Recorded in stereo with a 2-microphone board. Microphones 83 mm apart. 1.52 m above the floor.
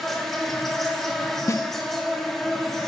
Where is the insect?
5° left (ahead or behind), 1.7 m.